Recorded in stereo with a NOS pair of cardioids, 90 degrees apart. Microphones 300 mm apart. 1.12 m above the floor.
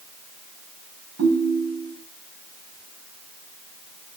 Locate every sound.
1.2 s a ringtone: 55° right, 4.5 m